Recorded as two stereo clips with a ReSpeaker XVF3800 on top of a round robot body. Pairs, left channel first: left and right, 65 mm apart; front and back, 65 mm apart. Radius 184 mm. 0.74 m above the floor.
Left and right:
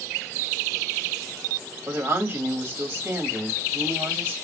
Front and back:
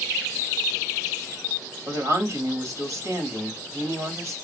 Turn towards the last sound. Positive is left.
turn(degrees=-150)